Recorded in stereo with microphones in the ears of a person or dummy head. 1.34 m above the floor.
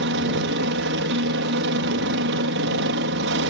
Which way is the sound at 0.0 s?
60° right (ahead or behind).